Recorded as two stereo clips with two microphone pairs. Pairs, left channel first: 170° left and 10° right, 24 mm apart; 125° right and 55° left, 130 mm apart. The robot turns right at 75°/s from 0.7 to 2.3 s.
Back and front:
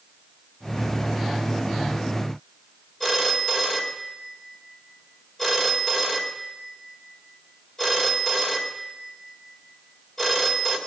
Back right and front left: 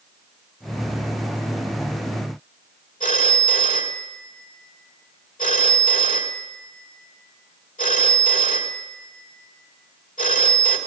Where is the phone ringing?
125° right, 2 m.